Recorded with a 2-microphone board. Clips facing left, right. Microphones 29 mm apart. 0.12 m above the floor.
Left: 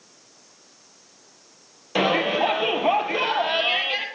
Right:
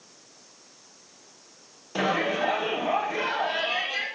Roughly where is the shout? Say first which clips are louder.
Left 4 dB; left.